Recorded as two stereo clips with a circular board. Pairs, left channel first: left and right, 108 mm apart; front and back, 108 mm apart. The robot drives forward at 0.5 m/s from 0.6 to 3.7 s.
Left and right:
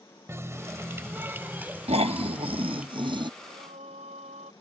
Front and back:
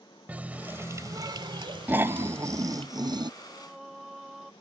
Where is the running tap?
120° right; by 2.9 s 170° right.